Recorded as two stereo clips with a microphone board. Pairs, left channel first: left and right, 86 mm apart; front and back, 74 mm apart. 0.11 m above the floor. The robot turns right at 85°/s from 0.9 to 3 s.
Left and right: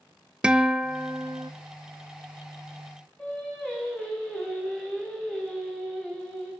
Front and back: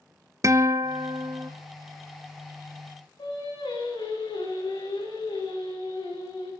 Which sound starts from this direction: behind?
A guitar, at 0.4 s.